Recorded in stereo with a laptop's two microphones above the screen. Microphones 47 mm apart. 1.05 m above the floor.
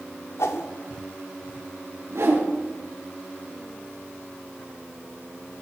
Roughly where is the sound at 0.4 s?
Left.